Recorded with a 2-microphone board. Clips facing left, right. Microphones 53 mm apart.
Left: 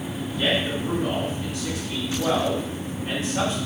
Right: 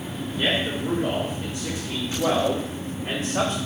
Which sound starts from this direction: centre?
A man speaking, at 0.4 s.